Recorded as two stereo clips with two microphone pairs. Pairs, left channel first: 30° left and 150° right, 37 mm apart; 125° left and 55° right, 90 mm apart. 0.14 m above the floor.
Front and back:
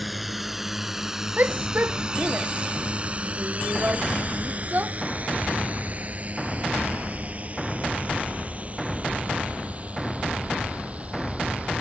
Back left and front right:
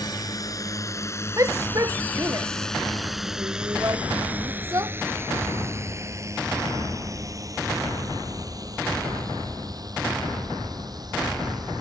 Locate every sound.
0.0 s a drone: 125° left; by 11.8 s 95° right
1.4 s a shout: 105° right